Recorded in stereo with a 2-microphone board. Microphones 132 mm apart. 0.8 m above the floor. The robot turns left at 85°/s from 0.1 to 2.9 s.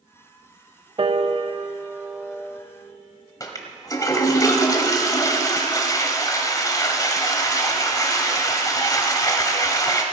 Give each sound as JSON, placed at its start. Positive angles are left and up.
{"t": 1.0, "sound": "a piano", "side_deg": -45, "distance_m": 0.7}
{"t": 3.4, "sound": "a toilet flushing", "side_deg": 25, "distance_m": 1.2}